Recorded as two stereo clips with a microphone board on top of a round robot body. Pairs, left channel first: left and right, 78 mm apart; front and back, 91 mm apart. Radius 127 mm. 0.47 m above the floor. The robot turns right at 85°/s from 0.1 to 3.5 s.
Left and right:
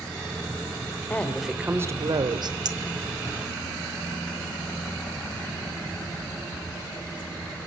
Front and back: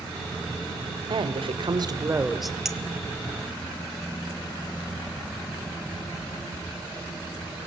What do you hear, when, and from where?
1.1 s a woman speaking: 155° left, 2.5 m; by 2.5 s 85° right, 2.5 m
2.6 s a clink: 95° right, 1.4 m; by 2.8 s 85° right, 1.4 m